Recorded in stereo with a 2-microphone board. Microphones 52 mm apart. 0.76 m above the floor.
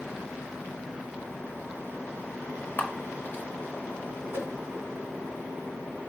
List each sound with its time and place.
2.8 s a camera shutter: 35° left (ahead or behind), 1.3 m
4.3 s a whoosh: 55° right (ahead or behind), 2.5 m